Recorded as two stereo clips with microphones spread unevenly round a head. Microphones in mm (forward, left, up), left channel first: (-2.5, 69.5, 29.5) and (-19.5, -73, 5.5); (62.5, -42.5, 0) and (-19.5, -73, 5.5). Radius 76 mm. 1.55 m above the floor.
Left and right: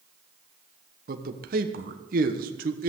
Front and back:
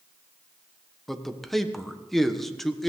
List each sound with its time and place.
1.1 s a man speaking: 65° right, 1.2 m